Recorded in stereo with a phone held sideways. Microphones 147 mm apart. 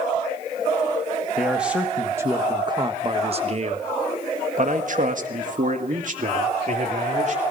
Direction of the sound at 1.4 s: 5° right (ahead or behind).